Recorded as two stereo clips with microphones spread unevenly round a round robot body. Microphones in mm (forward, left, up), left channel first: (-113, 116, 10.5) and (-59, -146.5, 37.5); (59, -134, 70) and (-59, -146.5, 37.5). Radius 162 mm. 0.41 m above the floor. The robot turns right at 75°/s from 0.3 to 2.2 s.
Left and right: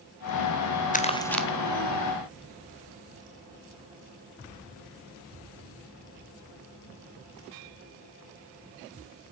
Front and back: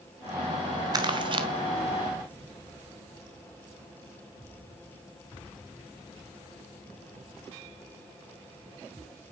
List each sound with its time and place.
0.9 s crumpling: 150° left, 1.3 m; by 1.5 s 170° right, 1.3 m